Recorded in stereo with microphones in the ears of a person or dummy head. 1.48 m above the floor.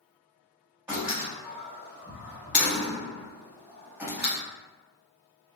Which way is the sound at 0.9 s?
10° right (ahead or behind).